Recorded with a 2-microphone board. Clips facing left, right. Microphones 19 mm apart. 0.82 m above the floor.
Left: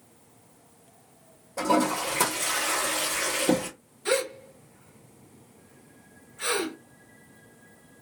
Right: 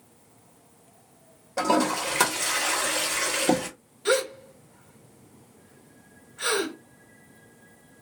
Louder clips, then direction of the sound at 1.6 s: Right 1 dB; 40° right (ahead or behind).